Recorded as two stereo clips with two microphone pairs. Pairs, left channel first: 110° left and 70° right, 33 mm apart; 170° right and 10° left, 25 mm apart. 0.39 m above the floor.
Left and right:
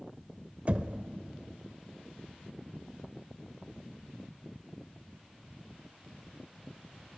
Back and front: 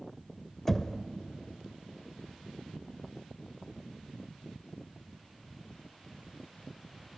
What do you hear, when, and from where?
0.7 s knocking: 90° right, 0.8 m